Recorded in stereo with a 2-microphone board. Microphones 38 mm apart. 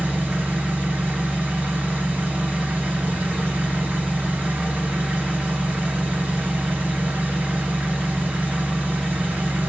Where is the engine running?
45° right (ahead or behind), 1.1 m.